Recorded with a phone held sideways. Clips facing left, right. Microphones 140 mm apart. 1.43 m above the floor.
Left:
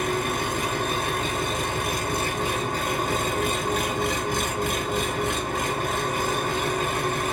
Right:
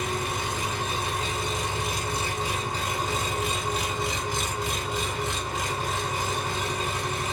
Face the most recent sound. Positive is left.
turn(degrees=55)  # may be behind; listen again after turning